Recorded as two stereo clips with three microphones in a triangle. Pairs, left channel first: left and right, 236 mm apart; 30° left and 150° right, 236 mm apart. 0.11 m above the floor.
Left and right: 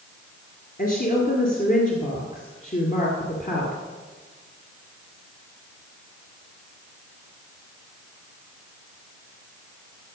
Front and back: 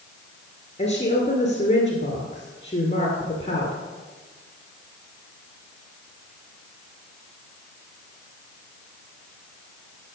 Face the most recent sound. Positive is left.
turn(degrees=75)